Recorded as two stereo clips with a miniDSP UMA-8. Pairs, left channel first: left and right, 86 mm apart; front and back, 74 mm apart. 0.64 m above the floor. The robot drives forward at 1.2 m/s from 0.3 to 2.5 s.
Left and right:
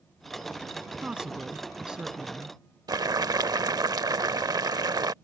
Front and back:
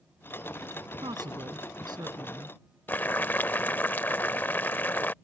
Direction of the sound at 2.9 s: 60° right.